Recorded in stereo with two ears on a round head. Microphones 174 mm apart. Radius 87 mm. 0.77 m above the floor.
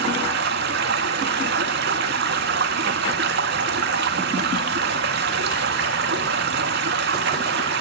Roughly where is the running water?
Right.